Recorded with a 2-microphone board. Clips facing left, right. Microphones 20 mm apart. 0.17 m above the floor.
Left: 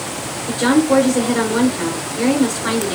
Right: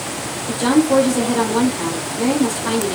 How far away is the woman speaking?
About 2.5 m.